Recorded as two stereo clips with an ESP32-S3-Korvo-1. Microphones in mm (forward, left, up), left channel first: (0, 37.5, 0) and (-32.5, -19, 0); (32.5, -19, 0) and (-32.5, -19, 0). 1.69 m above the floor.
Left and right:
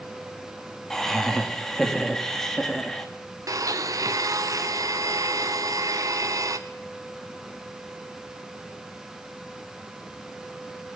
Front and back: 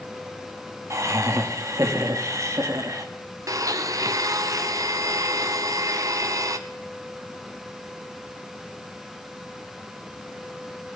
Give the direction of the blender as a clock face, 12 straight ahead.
5 o'clock.